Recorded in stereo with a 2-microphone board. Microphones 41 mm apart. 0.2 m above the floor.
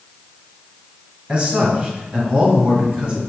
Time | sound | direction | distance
1.3 | a man speaking | 25° right (ahead or behind) | 1.3 m